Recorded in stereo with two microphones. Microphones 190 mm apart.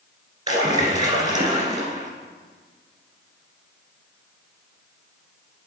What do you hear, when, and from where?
0.5 s a splash: 20° right (ahead or behind), 1.7 m